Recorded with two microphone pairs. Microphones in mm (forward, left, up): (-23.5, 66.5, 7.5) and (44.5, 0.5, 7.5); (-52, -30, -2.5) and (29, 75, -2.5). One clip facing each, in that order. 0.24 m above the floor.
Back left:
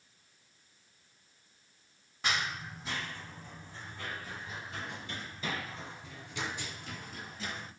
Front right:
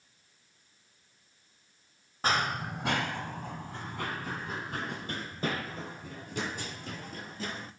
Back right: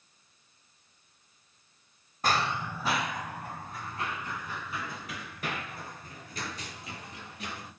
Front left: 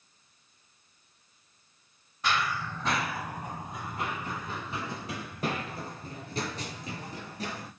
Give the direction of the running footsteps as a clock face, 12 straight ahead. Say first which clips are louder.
Front right 6 dB, back right 1 dB; 3 o'clock.